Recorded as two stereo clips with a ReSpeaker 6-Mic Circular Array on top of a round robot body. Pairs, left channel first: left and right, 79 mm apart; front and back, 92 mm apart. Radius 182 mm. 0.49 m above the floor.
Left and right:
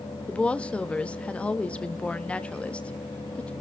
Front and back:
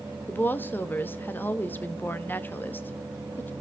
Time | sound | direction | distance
0.3 | a woman speaking | 35° left | 1.3 m